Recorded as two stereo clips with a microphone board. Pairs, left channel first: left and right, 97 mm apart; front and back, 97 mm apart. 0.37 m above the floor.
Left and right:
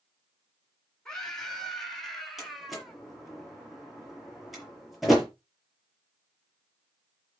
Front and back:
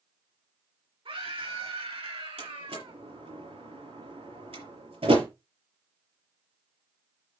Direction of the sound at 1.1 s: 170° left.